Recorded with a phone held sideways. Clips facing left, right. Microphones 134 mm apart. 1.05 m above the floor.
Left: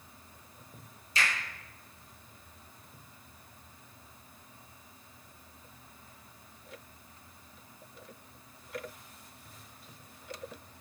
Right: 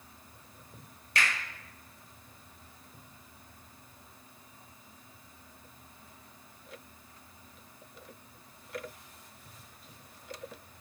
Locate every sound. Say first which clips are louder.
1.1 s a finger snap: right 1 dB; 65° right (ahead or behind), 1.0 m